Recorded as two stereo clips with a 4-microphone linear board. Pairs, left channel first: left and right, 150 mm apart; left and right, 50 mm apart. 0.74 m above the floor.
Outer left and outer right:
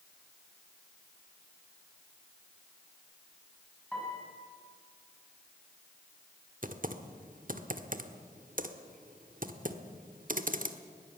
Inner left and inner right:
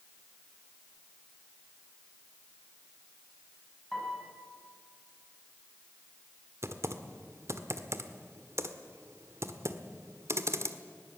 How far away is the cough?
I don't hear a cough.